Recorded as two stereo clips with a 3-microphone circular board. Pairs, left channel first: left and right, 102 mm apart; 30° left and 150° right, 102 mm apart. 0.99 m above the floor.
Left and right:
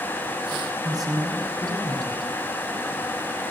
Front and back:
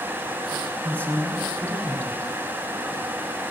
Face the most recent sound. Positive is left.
turn(degrees=-45)